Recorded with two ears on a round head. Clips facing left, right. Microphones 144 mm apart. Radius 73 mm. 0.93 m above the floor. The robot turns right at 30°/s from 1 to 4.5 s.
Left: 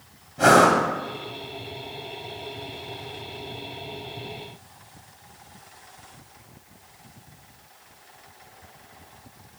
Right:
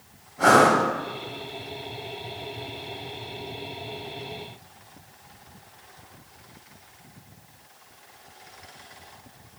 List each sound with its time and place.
0.4 s breathing: 30° left (ahead or behind), 1.4 m